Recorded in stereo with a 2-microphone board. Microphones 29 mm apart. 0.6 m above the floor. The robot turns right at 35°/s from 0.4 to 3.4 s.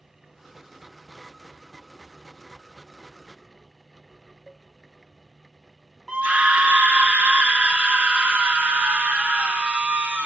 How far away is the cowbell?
About 1.6 m.